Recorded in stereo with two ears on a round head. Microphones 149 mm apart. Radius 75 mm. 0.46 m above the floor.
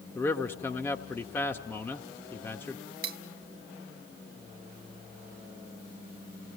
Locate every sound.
0.1 s a man speaking: 10° left (ahead or behind), 1.0 m
3.0 s cutlery clinking: 60° right (ahead or behind), 1.1 m